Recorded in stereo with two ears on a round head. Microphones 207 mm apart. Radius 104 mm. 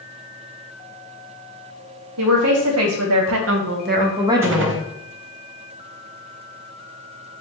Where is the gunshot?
55° right (ahead or behind), 0.5 m.